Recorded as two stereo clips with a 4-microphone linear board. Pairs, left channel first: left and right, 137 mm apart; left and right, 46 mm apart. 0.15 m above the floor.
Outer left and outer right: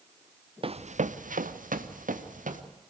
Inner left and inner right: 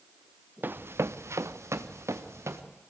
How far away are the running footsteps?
About 0.8 m.